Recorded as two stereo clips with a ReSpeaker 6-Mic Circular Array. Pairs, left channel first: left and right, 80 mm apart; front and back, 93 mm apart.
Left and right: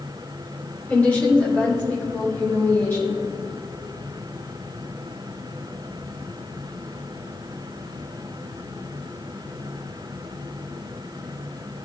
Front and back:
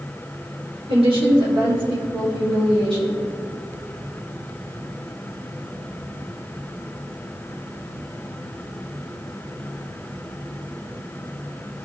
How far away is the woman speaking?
About 2.5 m.